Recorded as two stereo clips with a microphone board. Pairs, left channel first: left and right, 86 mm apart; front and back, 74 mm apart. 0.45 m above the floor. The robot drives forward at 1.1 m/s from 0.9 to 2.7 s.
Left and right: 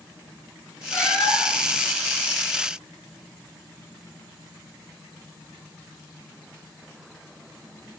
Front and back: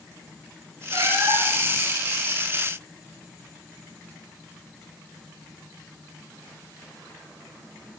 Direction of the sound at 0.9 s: 150° left.